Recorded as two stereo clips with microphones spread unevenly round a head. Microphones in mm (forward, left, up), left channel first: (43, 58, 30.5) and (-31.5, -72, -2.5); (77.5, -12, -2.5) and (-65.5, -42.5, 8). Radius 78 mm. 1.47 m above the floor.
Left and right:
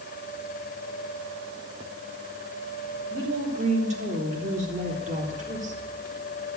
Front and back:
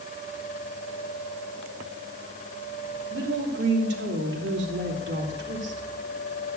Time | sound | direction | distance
3.1 | a woman speaking | 170° right | 3.5 m